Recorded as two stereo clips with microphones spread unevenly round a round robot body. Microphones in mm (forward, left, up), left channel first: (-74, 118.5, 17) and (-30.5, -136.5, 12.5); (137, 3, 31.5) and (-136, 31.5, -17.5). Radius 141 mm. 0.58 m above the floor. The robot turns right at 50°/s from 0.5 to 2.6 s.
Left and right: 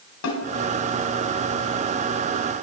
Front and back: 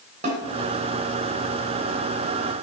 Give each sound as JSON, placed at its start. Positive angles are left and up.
{"t": 0.2, "sound": "a snare drum", "azimuth_deg": 115, "distance_m": 2.5}